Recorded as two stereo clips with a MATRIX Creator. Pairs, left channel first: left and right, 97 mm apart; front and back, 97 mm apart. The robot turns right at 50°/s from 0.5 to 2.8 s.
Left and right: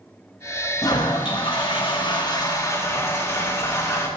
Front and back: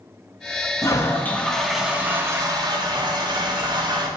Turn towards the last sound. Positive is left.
turn(degrees=145)